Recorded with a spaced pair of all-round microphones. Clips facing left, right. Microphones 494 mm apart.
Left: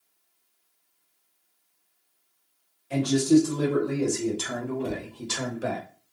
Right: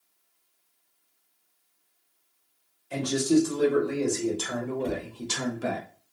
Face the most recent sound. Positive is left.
turn(degrees=60)  # may be behind; listen again after turning